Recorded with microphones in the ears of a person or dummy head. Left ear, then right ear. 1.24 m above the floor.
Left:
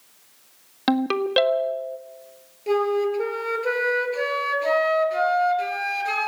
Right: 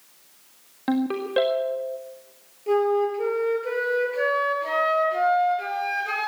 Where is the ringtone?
85° left, 1.3 m.